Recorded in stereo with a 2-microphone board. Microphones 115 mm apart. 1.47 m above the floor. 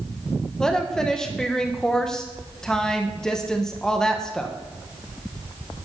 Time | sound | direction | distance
0.6 | a woman speaking | 5° left (ahead or behind) | 1.5 m